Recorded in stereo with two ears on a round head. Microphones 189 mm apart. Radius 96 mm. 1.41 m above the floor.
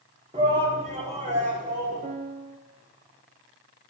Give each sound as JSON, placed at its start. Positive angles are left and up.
{"t": 0.3, "sound": "a shout", "side_deg": -30, "distance_m": 4.0}
{"t": 2.0, "sound": "a piano", "side_deg": -35, "distance_m": 1.3}